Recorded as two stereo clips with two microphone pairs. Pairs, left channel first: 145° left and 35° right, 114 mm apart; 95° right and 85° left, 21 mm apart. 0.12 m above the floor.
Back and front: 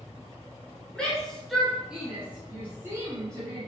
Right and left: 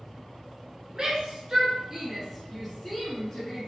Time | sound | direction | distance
0.9 | a shout | 70° left | 1.5 m